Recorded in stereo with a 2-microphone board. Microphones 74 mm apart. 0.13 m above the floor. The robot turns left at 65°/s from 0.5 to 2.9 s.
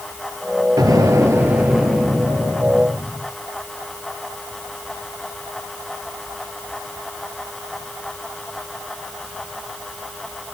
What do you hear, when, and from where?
0.8 s an explosion: 105° right, 2 m; by 3.3 s 115° left, 2 m